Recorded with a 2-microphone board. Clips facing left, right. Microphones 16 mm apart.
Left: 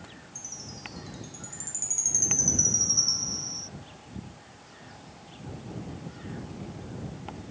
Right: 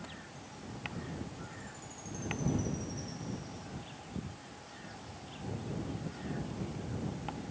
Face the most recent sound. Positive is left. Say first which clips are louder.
# left 6 dB
turn(degrees=80)